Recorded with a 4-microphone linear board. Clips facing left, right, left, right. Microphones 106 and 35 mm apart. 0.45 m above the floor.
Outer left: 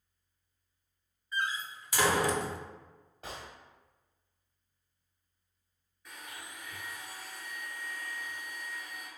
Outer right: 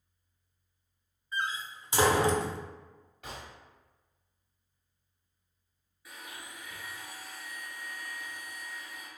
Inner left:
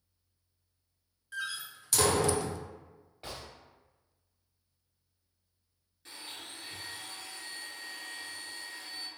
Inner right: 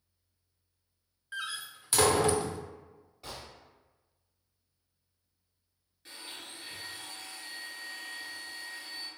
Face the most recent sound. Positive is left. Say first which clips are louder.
# outer right 1 dB, even
turn(degrees=-5)  # may be behind; listen again after turning